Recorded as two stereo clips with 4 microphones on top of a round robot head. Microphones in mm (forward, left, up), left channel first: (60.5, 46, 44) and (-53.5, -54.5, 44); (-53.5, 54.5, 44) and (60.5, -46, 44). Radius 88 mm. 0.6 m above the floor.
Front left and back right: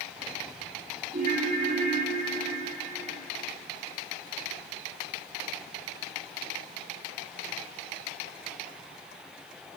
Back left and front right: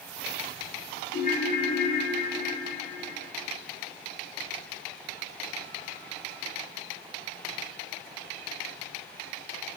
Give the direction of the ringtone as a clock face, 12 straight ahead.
6 o'clock.